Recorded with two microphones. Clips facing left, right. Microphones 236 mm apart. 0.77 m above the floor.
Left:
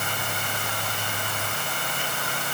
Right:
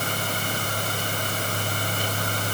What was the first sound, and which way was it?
Only background noise.